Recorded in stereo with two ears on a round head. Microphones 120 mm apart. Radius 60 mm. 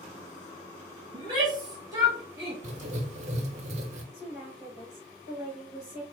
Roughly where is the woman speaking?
Centre.